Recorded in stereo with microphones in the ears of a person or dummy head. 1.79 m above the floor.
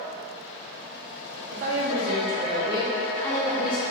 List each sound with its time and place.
1.5 s a woman speaking: 60° right (ahead or behind), 1.3 m; by 3.8 s 40° left (ahead or behind), 0.9 m